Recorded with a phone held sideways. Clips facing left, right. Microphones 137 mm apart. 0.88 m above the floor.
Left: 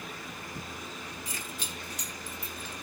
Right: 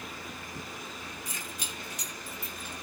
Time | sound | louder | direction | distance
1.2 | keys jangling | left 1 dB | 20° right (ahead or behind) | 5.5 m